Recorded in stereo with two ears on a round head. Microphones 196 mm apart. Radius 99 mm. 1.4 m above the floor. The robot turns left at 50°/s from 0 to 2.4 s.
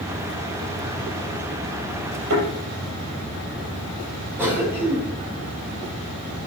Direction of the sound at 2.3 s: 65° right (ahead or behind).